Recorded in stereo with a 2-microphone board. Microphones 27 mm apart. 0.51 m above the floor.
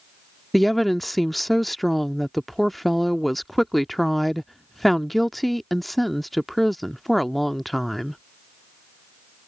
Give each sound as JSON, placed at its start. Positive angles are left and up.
{"t": 0.5, "sound": "a woman speaking", "side_deg": 0}